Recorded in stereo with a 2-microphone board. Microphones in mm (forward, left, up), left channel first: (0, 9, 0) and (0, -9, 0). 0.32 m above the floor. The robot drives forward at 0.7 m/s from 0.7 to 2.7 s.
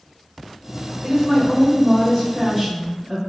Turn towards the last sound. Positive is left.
turn(degrees=5)  # may be behind; listen again after turning